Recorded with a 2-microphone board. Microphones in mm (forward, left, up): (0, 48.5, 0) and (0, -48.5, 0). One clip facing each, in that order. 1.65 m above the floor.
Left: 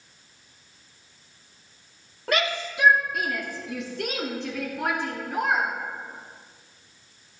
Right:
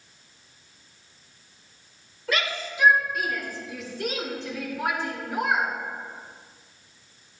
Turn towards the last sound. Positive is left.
turn(degrees=55)  # may be behind; listen again after turning